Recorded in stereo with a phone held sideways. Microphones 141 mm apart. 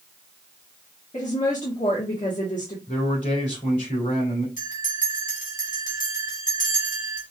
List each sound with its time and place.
1.1 s a woman speaking: 60° left (ahead or behind), 1.3 m
2.9 s a man speaking: 65° left (ahead or behind), 2.5 m
4.6 s a bell: 65° left (ahead or behind), 1.9 m